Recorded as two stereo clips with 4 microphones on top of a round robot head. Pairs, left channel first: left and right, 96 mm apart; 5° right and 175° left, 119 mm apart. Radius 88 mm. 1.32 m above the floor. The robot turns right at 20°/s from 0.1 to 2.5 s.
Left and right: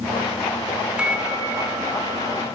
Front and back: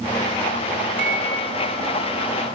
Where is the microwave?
170° right, 2.5 m; by 2.5 s 140° right, 2.5 m.